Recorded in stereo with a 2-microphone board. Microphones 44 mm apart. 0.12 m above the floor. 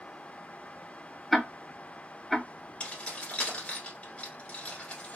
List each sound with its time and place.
1.3 s ticking: 5° left (ahead or behind), 0.5 m
2.8 s keys jangling: 30° left (ahead or behind), 1.2 m